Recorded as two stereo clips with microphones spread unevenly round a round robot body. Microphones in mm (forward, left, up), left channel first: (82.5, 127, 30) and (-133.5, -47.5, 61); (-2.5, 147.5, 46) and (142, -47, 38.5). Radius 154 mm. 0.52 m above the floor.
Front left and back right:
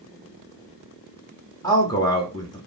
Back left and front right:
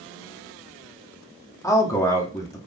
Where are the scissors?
No scissors in this recording.